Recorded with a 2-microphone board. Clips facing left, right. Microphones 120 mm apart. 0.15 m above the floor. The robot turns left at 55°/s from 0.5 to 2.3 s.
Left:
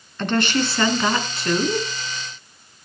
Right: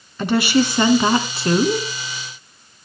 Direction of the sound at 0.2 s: 15° right.